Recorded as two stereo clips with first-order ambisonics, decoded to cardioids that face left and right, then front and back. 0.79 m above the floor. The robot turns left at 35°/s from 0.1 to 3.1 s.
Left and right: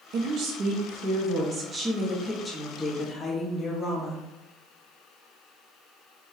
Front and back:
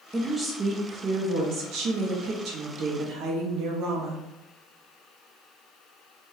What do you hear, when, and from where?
0.1 s a woman speaking: 100° right, 0.7 m; by 4.2 s 155° left, 0.7 m